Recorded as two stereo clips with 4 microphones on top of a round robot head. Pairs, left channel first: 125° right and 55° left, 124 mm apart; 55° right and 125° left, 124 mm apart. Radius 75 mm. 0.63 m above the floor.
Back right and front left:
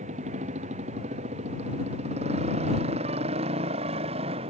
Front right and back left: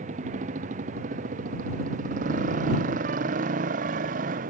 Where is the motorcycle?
90° left; by 4.5 s 100° left.